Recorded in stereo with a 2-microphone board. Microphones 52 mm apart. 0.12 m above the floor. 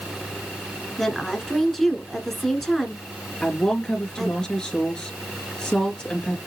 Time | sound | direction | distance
1.0 | a woman speaking | 5° left (ahead or behind) | 1.2 m
3.4 | a woman speaking | 15° left (ahead or behind) | 2 m